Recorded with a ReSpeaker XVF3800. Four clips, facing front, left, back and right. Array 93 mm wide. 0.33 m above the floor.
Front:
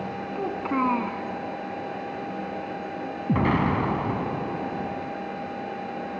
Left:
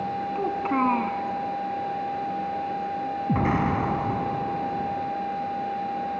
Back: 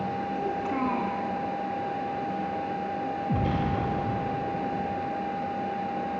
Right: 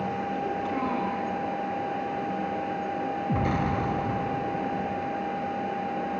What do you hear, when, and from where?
0.3 s a child speaking: 50° left, 2.5 m
3.3 s an explosion: 30° left, 1.1 m